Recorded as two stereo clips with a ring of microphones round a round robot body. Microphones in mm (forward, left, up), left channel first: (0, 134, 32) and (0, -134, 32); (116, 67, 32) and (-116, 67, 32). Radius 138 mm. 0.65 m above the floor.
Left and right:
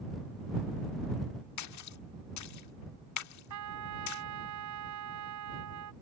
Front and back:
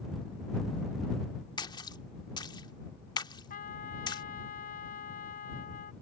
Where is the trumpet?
60° right.